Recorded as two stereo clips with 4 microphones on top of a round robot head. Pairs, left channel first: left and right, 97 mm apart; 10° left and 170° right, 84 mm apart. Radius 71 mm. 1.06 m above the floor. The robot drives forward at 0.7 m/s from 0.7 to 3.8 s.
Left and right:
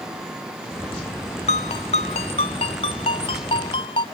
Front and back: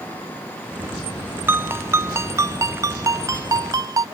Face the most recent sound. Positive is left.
turn(degrees=140)